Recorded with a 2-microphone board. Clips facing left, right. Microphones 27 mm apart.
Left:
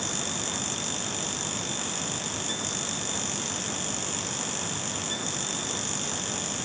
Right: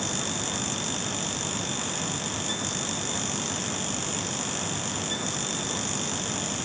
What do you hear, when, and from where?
Only background noise.